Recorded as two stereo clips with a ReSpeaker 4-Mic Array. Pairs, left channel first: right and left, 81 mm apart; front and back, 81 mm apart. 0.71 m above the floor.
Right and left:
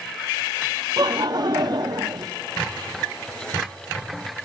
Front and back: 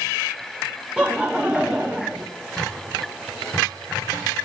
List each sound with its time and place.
1.0 s laughter: 105° left, 0.8 m